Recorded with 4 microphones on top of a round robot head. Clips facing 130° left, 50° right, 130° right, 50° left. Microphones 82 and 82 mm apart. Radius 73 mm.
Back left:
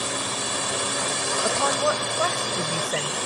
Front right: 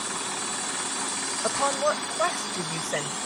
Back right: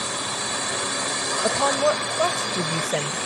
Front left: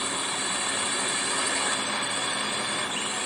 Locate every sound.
0.0 s a drone: 160° left
1.4 s a woman speaking: 140° right